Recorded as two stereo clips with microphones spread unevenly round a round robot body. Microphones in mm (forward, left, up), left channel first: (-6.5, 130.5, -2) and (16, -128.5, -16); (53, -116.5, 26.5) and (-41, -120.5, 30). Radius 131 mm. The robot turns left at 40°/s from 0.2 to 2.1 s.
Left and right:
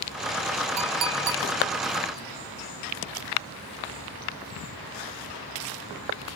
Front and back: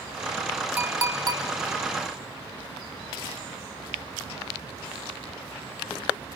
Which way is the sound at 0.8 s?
105° right.